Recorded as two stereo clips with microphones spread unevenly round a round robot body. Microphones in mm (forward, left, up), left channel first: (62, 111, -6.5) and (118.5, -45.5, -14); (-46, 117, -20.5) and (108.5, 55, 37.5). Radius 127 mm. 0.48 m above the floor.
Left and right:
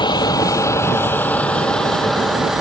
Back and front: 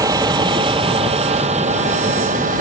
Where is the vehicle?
45° left; by 2.6 s 15° left.